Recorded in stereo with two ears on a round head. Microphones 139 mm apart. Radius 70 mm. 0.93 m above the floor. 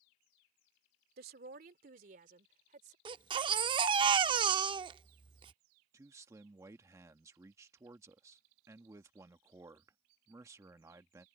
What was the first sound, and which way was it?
A woman speaking, 70° right (ahead or behind).